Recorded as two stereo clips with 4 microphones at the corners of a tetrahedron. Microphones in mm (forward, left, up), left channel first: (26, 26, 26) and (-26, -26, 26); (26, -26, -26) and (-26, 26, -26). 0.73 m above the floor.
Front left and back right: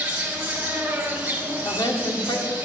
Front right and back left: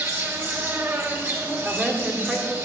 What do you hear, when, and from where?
0.0 s an insect: 165° left, 2 m
1.6 s a woman speaking: 55° left, 1.7 m